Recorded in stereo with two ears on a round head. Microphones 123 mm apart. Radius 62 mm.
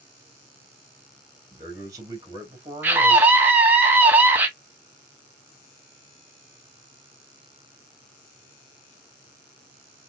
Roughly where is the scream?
Centre.